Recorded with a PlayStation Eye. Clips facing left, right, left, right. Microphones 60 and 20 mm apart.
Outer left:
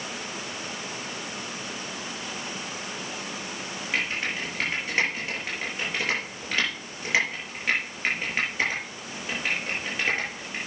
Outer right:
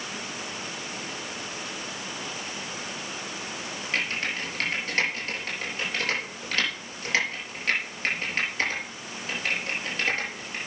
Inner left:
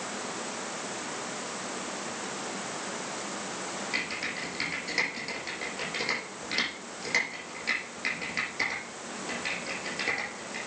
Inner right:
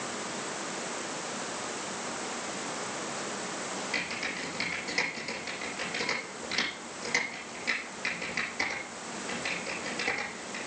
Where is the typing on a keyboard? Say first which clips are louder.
Outer left 1 dB, inner left 1 dB; 10° left (ahead or behind), 6 m.